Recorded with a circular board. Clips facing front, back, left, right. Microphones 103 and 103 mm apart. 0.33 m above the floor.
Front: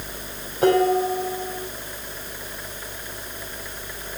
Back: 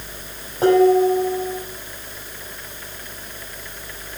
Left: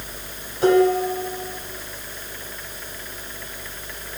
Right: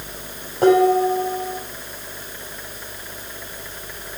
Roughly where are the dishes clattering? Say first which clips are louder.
Back 5 dB, right 2 dB; behind right.